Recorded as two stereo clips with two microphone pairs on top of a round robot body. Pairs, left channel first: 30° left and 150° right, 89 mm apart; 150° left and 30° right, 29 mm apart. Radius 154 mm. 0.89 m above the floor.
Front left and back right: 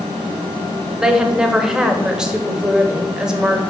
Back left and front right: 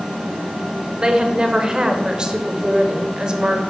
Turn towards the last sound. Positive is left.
turn(degrees=-80)